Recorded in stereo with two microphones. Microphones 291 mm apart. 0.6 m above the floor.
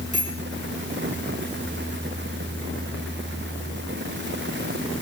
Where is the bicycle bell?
85° right, 9 m.